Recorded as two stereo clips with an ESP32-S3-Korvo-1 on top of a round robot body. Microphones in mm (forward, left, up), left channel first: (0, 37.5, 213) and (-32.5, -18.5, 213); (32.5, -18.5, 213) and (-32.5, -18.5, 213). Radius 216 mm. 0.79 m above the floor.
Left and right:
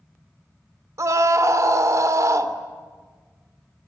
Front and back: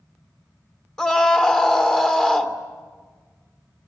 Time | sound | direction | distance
1.0 | a scream | 80° right | 2.5 m